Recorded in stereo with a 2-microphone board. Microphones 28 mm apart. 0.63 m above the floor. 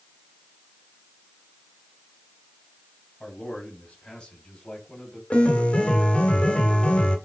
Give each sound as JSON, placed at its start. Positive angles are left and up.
{"t": 3.2, "sound": "a man speaking", "side_deg": 45, "distance_m": 4.0}
{"t": 5.3, "sound": "a piano", "side_deg": 50, "distance_m": 1.6}